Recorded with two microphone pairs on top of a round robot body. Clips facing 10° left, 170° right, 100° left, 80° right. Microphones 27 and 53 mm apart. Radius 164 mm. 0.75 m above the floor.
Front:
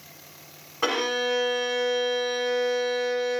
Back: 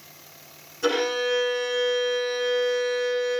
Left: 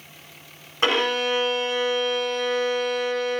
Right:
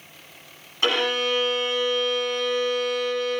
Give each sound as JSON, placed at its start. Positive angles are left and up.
{"t": 0.8, "sound": "a violin", "azimuth_deg": 35, "distance_m": 1.0}